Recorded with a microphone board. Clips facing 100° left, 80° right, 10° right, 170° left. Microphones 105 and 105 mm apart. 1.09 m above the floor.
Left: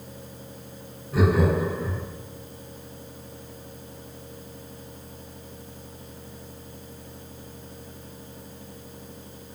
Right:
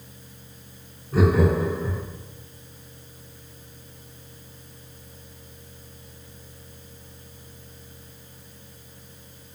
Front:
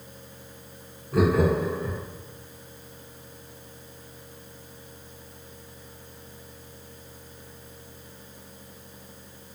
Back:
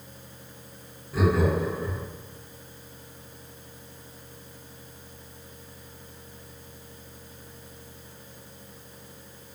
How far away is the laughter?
About 0.8 m.